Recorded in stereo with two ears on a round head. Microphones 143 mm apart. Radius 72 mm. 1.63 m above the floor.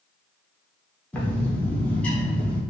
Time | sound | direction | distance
1.1 | a bird | 10° left (ahead or behind) | 0.8 m